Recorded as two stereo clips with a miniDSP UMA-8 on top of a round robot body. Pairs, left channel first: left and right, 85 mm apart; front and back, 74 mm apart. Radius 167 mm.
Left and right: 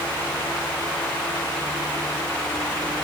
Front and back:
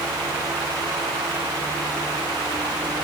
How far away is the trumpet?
I don't hear a trumpet.